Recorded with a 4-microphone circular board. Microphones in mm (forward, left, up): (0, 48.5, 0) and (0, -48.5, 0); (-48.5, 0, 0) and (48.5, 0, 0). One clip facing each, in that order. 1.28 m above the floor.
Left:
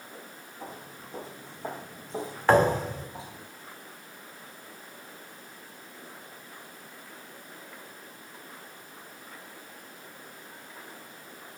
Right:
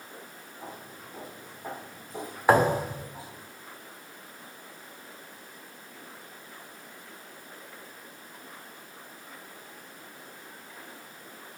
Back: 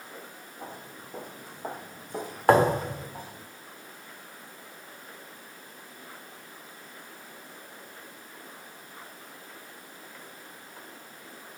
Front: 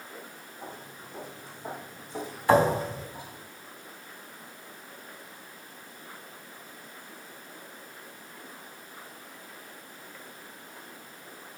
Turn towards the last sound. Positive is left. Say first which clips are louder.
# even, back 1 dB
turn(degrees=-165)